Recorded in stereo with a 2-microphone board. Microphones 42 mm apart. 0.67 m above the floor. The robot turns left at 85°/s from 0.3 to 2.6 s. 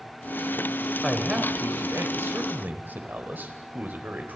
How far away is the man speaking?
About 3.5 m.